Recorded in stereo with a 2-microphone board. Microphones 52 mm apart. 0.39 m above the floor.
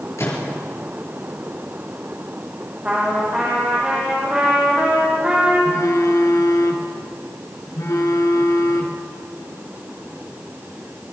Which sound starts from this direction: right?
A trumpet, at 2.9 s.